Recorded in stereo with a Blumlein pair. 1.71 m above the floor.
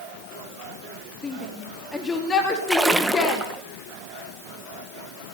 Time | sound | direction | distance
1.2 | a shout | 10° left | 4.5 m
2.7 | a splash | 5° right | 1.9 m